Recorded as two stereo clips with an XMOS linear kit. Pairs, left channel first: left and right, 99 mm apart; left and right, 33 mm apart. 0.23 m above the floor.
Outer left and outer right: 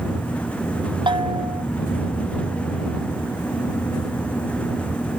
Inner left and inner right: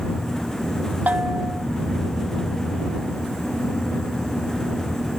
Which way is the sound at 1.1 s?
55° right (ahead or behind).